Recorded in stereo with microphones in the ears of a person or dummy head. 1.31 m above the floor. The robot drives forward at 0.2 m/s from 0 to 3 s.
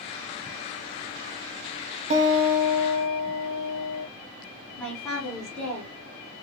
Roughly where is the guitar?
Right.